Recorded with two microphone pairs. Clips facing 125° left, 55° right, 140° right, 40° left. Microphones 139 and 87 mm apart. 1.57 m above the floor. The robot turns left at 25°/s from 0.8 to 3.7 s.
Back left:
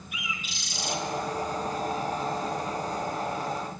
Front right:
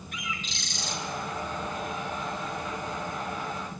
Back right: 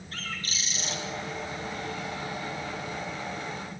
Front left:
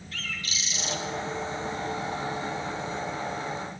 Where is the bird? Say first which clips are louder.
Front right 1 dB, even; 160° right, 0.9 m; by 1.0 s 165° right, 0.9 m.